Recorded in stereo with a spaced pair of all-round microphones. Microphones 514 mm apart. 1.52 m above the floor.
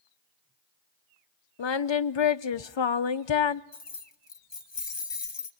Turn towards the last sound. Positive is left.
turn(degrees=55)  # may be behind; listen again after turning